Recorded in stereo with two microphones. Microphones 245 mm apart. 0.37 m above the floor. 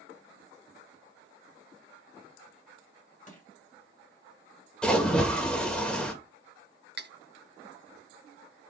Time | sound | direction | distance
3.3 | crushing | 30° left (ahead or behind) | 2 m
4.8 | a splash | 5° left (ahead or behind) | 1.3 m
7.0 | cutlery clinking | 45° right (ahead or behind) | 0.6 m